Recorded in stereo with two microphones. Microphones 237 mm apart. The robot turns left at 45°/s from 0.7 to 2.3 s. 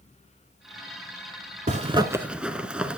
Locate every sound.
1.7 s a zipper: 35° right (ahead or behind), 0.6 m; by 3.0 s 5° right (ahead or behind), 0.6 m